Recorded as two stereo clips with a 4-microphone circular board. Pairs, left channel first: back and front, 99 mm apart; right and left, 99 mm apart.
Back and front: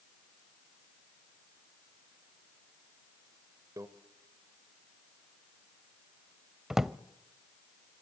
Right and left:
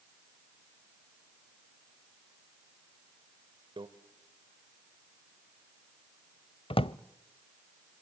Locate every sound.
3.8 s a microwave: 55° left, 1.5 m
6.7 s a drawer: 85° right, 0.5 m